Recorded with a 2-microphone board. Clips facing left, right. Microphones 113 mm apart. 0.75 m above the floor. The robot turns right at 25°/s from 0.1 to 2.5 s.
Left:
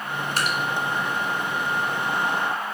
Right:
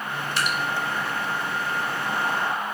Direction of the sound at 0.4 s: 45° left (ahead or behind).